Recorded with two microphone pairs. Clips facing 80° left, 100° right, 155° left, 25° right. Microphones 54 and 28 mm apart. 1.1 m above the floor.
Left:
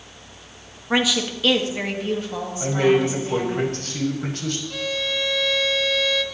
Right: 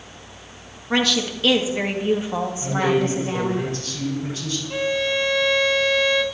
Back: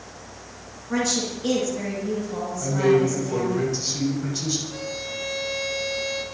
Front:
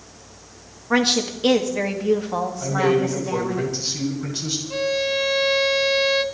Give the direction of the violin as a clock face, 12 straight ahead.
1 o'clock.